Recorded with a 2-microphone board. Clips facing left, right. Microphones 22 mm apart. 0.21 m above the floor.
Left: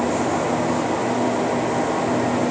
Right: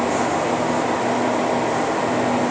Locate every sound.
Only background noise.